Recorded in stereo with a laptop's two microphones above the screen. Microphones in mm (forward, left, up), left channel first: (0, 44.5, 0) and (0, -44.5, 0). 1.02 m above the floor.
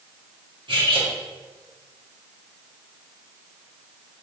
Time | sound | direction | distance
0.7 | cutlery clinking | 70° right (ahead or behind) | 1.0 m